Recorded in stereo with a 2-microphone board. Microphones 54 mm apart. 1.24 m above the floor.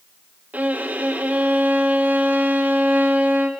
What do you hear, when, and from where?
0.5 s a violin: 30° right (ahead or behind), 3 m